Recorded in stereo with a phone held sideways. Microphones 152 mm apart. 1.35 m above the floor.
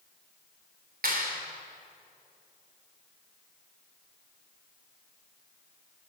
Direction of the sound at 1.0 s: 75° right (ahead or behind).